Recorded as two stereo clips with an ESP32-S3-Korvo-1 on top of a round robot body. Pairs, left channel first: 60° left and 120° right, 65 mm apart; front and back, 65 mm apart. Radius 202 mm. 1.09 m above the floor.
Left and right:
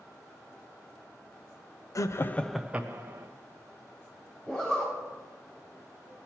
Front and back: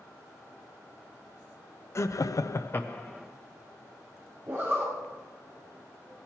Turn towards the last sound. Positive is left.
turn(degrees=130)